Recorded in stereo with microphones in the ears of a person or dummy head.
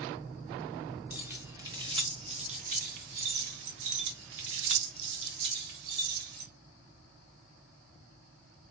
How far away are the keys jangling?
About 1.3 m.